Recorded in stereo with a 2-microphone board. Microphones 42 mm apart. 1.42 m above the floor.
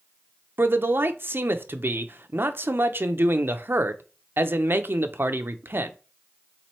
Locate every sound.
0.6 s a man speaking: 55° right (ahead or behind), 0.6 m